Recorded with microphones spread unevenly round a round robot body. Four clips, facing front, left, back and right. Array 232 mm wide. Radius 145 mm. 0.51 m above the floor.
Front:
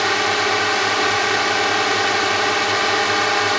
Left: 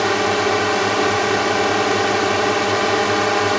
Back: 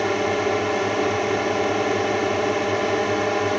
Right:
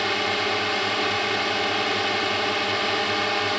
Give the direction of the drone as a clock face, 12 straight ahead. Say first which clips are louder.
Left 8 dB, front 2 dB; 8 o'clock.